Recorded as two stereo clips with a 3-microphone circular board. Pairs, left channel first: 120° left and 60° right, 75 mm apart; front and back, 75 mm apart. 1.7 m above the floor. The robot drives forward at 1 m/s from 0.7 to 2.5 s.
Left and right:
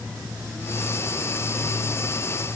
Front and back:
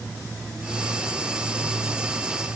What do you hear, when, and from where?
Only background noise.